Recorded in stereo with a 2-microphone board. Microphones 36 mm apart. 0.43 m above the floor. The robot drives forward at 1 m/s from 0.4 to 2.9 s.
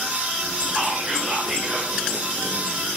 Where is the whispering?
35° right (ahead or behind), 1.3 m; by 1.9 s 20° right (ahead or behind), 1.9 m.